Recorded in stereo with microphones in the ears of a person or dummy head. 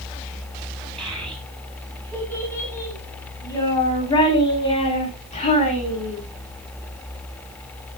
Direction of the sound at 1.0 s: Centre (ahead or behind).